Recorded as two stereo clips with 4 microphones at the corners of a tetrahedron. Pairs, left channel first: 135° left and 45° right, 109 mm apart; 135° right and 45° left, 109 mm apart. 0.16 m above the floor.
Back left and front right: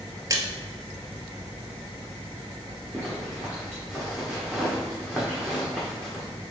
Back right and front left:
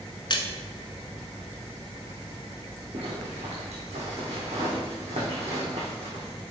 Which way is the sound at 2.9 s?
45° left.